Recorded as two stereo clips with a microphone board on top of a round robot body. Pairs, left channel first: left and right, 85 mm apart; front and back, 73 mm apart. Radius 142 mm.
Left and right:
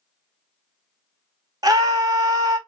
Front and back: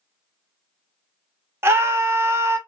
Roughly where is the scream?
Behind right.